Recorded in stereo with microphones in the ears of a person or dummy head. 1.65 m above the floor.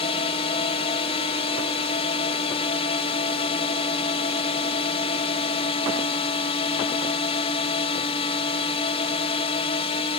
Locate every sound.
0.0 s a drone: 35° left (ahead or behind)